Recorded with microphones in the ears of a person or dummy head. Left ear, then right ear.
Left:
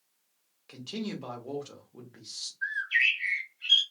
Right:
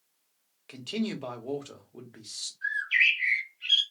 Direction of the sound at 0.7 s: 15° right (ahead or behind).